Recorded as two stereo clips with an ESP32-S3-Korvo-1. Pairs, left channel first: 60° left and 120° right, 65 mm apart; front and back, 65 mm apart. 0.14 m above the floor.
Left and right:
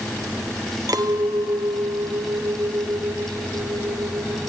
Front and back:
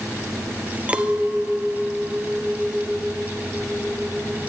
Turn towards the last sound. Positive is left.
turn(degrees=-110)